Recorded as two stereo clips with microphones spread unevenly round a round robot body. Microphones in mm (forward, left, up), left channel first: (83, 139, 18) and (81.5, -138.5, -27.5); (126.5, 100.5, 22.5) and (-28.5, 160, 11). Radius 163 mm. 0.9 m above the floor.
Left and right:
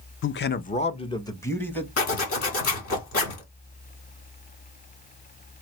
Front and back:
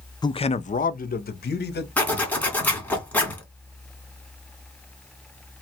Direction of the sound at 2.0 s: 60° left.